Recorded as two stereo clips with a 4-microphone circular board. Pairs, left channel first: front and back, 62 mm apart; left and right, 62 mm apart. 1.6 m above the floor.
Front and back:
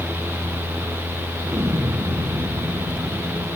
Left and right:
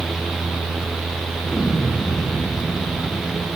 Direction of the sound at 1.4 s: 145° left.